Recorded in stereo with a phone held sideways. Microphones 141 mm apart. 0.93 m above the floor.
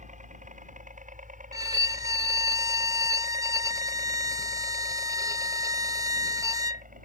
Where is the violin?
25° right (ahead or behind).